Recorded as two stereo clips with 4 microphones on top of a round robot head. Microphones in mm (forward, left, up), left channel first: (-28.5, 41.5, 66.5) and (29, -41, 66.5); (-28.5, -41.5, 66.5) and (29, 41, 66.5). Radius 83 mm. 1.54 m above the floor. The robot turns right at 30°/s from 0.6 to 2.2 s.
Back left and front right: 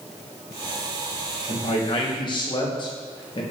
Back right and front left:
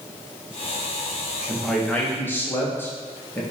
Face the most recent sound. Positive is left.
turn(degrees=165)